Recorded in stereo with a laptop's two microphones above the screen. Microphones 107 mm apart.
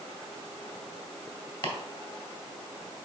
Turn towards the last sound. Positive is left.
turn(degrees=55)  # may be behind; listen again after turning